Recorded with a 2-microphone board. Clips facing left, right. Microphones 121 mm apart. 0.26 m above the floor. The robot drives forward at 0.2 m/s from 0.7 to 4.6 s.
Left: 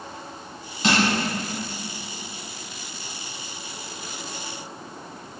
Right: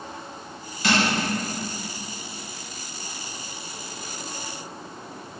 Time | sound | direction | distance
0.8 | crushing | 25° left (ahead or behind) | 1.3 m